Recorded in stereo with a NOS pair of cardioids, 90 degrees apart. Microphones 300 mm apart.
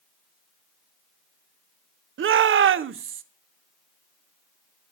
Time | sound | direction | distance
2.2 | a shout | 45° right | 0.7 m